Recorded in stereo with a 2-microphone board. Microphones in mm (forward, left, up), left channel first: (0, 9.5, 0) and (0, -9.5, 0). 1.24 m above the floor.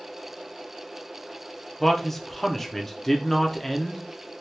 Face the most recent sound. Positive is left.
turn(degrees=20)  # may be behind; listen again after turning